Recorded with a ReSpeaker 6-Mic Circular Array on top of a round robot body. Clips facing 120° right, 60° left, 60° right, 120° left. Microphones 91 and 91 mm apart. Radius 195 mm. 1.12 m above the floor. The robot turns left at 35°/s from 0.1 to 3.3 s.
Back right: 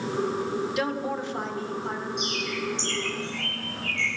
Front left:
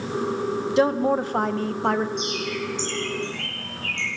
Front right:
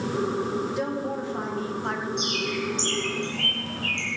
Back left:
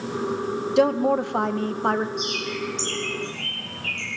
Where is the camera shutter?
No camera shutter in this recording.